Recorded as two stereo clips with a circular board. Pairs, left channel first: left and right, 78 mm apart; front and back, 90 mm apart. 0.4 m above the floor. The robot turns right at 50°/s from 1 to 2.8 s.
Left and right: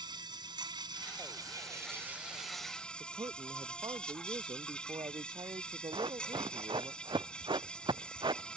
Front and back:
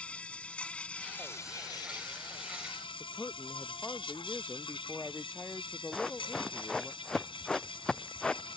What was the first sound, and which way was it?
An insect, 75° right.